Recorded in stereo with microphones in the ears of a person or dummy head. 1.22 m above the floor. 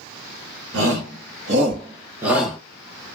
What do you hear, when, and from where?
0.7 s a shout: 70° right (ahead or behind), 1.0 m; by 2.6 s centre (ahead or behind), 1.1 m